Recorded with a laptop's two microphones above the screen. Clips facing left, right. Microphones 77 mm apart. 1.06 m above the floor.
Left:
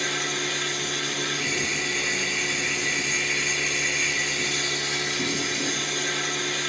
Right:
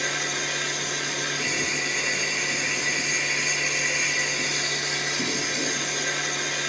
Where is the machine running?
15° right (ahead or behind), 1.3 m.